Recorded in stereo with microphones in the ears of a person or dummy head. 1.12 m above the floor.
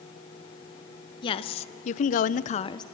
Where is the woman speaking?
25° left (ahead or behind), 1.1 m; by 2.8 s 20° left (ahead or behind), 0.6 m.